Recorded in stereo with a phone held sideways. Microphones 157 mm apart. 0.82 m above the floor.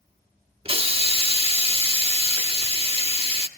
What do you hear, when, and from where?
0.7 s a hiss: 35° right (ahead or behind), 1.0 m